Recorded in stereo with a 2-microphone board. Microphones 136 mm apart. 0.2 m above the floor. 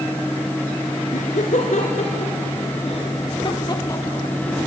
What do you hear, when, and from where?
1.1 s laughter: 65° left (ahead or behind), 2.5 m; by 4.7 s 5° left (ahead or behind), 1.2 m